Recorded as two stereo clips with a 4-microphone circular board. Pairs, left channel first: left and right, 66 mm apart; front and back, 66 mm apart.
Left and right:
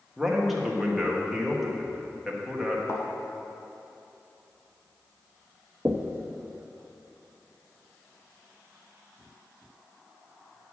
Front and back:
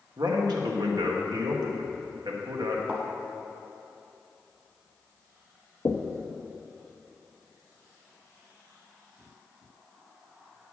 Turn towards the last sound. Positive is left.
turn(degrees=-30)